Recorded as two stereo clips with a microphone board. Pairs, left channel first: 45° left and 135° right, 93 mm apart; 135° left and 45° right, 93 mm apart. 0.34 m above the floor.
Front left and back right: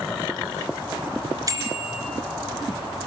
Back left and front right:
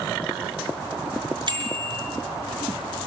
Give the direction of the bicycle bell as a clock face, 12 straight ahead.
3 o'clock.